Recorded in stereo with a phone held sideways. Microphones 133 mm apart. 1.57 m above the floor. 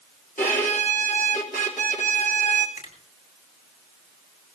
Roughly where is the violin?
Left.